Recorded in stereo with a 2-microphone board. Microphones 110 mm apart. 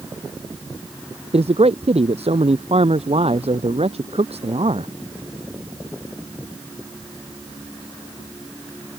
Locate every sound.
1.3 s a man speaking: 70° right (ahead or behind)